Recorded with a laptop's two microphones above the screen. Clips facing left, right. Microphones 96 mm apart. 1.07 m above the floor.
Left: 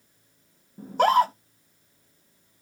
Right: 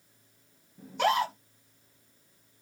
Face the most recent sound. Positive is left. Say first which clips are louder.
# left 7 dB
turn(degrees=40)  # may be behind; listen again after turning